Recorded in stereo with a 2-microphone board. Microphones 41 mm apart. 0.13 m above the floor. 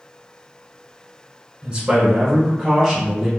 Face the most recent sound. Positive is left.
turn(degrees=-10)  # may be behind; listen again after turning